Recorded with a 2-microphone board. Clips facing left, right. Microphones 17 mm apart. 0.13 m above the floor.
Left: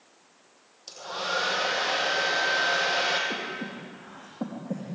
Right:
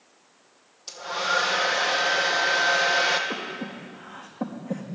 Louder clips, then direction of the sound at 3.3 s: Right 1 dB; 30° right (ahead or behind).